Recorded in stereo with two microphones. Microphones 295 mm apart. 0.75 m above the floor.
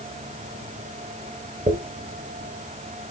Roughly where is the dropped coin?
Right.